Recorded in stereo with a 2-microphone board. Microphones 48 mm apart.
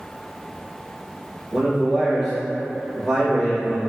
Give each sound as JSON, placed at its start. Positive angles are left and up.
{"t": 1.5, "sound": "a man speaking", "side_deg": 10, "distance_m": 1.3}